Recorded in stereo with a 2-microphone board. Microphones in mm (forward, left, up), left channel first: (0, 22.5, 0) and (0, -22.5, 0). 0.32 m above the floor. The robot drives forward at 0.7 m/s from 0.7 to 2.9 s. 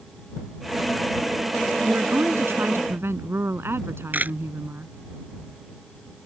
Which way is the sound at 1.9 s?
65° right (ahead or behind).